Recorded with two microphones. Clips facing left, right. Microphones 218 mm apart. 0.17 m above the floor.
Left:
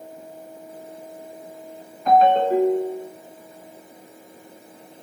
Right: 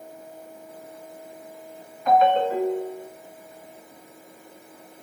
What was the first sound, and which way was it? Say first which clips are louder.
A ringtone: left 3 dB; 40° left (ahead or behind).